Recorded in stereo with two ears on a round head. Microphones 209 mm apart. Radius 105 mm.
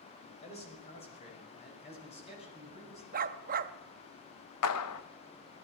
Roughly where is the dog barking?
Right.